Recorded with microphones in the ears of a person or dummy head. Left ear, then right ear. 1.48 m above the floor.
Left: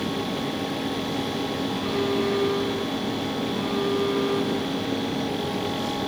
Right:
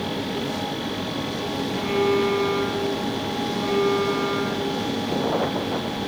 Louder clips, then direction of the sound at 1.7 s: Right 6 dB; 5° left (ahead or behind).